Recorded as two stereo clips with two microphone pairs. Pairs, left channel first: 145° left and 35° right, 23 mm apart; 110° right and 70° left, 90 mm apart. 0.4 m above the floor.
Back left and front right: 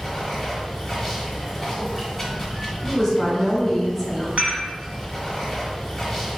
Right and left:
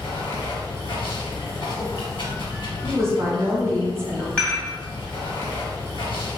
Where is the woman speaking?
65° left, 1.1 m.